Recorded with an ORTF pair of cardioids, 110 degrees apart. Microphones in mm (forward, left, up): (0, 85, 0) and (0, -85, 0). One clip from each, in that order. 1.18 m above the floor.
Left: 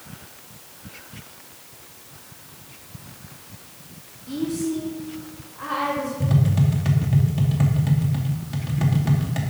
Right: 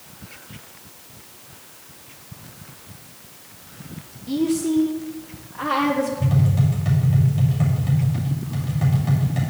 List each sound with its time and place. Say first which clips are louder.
4.3 s a woman speaking: right 5 dB; 30° right, 1.0 m; by 6.1 s 65° right, 2.0 m
6.2 s tapping: even; 30° left, 2.5 m